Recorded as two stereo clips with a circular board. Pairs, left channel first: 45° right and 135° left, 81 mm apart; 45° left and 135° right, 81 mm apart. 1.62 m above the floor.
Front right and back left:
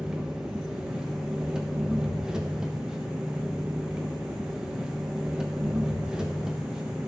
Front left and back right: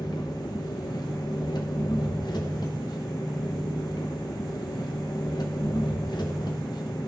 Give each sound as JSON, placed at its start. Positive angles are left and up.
{"t": 0.0, "sound": "an engine running", "azimuth_deg": 55, "distance_m": 1.1}